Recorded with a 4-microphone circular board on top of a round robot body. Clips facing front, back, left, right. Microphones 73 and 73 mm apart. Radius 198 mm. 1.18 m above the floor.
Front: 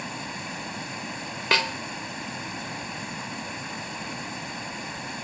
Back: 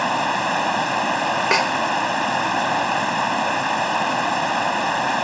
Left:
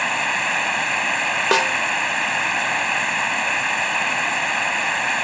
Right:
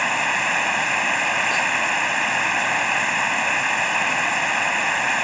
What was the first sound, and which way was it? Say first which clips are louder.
Running water: back 15 dB, right 1 dB; 175° right.